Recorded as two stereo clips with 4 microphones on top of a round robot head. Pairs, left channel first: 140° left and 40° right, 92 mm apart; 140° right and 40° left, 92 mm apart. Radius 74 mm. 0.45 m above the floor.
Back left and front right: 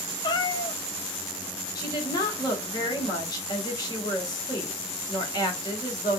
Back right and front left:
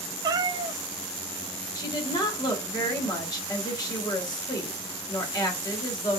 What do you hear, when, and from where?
0.2 s a cat meowing: 90° left, 0.5 m
1.8 s a woman speaking: straight behind, 2 m